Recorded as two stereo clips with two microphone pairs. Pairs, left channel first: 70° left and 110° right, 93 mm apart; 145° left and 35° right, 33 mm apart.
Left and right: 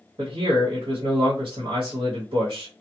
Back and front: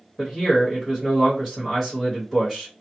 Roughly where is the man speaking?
Behind right.